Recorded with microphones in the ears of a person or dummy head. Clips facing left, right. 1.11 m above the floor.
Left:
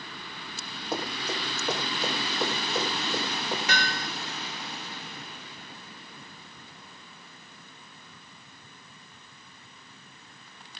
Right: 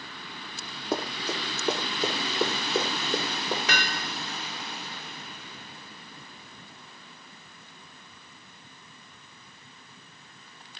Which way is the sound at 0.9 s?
75° right (ahead or behind).